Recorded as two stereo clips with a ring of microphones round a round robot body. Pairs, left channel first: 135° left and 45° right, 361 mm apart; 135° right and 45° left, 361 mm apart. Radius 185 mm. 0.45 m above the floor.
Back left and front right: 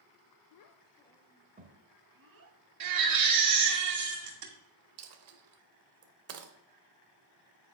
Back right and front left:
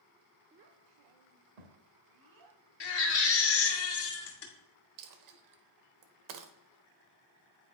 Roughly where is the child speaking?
Left.